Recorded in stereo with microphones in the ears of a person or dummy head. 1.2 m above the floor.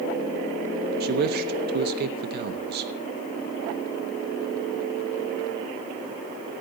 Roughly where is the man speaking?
Right.